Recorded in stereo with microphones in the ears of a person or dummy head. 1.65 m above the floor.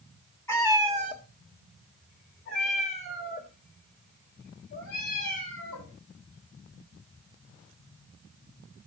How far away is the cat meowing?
About 1.3 m.